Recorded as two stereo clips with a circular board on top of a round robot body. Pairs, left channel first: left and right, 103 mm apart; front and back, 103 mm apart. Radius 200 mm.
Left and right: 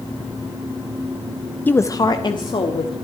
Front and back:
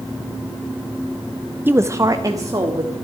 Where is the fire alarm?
I don't hear a fire alarm.